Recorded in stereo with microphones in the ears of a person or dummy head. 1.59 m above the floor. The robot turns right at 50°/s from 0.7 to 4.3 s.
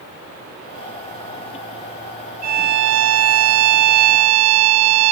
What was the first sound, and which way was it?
A violin, 135° right.